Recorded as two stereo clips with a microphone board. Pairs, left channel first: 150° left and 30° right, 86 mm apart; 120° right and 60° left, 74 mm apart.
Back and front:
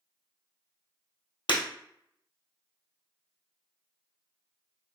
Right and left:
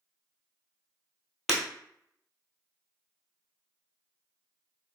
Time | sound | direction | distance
1.5 | breaking glass | 150° left | 1.4 m